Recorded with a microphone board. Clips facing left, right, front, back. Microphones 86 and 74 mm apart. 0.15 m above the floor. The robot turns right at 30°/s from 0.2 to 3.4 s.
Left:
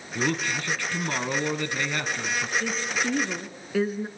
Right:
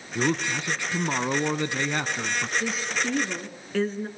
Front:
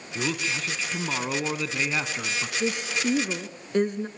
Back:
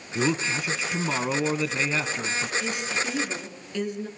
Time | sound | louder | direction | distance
0.1 | a man speaking | right 1 dB, back 4 dB | 135° right | 1.1 m
2.6 | a woman speaking | even, front 2 dB | 15° right | 1.8 m